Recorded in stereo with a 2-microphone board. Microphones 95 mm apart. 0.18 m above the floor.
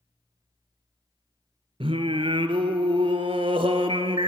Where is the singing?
80° right, 0.5 m.